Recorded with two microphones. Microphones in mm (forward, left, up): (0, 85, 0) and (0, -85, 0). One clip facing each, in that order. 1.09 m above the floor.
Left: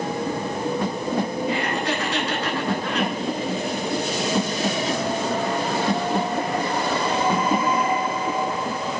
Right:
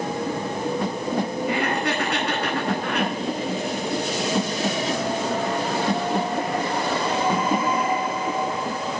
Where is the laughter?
55° right (ahead or behind), 9 m.